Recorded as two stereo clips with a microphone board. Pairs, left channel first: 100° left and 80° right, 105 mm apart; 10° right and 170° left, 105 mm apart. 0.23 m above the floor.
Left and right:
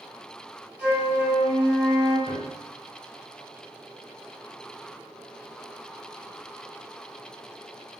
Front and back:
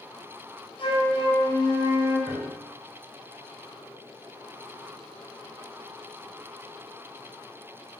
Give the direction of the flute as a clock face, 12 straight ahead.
12 o'clock.